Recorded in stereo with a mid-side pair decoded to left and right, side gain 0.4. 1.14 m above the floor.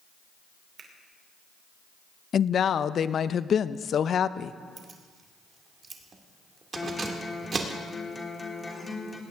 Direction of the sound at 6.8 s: 25° left.